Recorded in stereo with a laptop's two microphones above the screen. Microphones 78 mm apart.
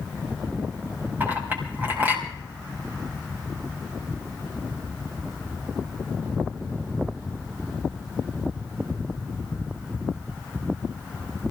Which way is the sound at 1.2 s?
25° right (ahead or behind).